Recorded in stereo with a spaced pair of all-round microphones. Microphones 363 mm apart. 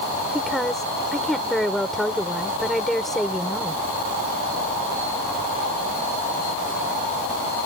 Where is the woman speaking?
Centre (ahead or behind).